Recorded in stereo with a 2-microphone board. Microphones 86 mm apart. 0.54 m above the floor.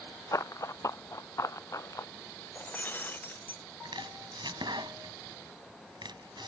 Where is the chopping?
60° right (ahead or behind).